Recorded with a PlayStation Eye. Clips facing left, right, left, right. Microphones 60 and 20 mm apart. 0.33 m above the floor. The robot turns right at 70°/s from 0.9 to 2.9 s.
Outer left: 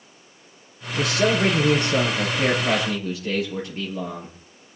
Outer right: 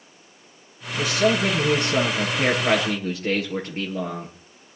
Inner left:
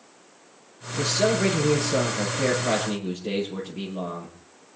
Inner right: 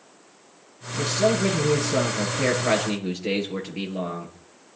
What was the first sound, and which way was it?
A man speaking, 90° left.